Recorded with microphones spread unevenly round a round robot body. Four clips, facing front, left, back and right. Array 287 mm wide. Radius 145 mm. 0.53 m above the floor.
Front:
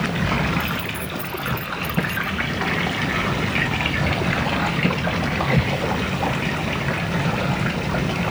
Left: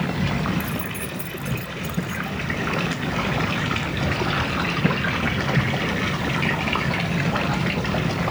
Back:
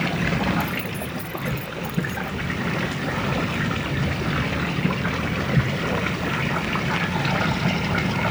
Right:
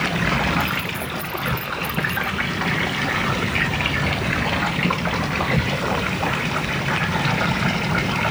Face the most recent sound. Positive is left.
turn(degrees=15)